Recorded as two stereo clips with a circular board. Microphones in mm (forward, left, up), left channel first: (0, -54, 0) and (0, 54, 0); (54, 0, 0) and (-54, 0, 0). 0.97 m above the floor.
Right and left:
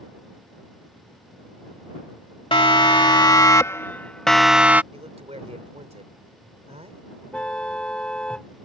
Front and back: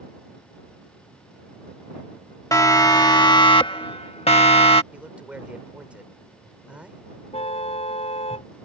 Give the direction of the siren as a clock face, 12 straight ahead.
2 o'clock.